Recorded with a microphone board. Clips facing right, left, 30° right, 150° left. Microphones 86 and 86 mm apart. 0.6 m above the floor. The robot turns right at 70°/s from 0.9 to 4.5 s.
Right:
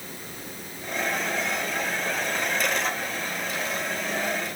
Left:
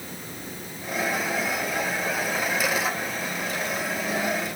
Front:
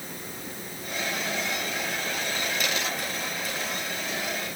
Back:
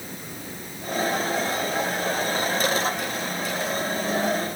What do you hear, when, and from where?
Only background noise.